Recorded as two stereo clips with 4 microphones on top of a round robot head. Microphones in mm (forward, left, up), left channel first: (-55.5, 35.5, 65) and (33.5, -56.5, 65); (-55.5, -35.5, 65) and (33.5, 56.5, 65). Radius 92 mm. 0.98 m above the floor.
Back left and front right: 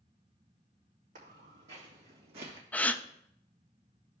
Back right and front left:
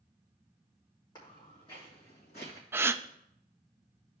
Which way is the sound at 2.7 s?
80° left.